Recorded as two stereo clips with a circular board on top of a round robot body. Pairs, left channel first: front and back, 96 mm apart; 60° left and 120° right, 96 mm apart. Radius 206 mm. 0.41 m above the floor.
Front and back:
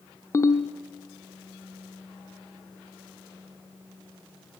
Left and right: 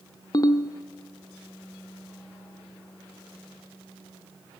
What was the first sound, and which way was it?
A ringtone, 40° left.